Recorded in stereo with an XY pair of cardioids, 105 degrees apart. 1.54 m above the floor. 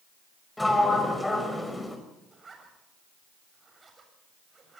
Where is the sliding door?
10° left, 5.5 m.